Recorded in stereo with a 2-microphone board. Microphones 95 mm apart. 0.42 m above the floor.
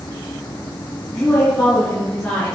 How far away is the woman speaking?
About 5.5 m.